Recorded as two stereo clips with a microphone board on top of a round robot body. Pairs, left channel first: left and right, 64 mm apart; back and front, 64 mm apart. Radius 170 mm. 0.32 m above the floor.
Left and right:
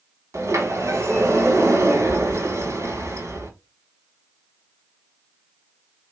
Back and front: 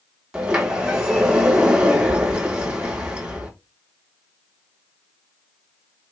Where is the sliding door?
75° right, 1.5 m.